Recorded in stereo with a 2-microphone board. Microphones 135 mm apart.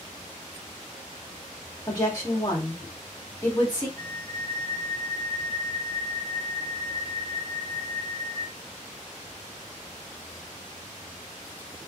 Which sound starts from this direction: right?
A flute, at 4.0 s.